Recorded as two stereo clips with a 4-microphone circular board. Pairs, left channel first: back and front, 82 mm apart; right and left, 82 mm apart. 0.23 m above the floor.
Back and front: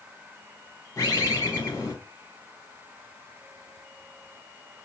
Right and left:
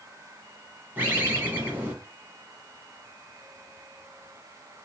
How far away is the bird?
About 1.3 m.